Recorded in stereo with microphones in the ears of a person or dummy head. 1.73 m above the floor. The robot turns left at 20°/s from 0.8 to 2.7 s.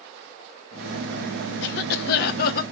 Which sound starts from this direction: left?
A cough, at 1.6 s.